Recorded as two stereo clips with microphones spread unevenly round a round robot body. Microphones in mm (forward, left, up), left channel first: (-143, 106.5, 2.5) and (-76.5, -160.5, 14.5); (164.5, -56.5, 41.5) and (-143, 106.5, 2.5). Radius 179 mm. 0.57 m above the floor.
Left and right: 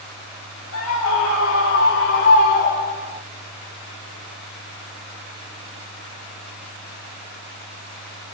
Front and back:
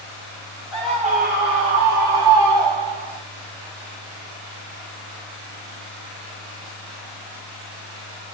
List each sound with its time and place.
0.7 s a scream: 80° left, 1.4 m; by 3.2 s 160° left, 2 m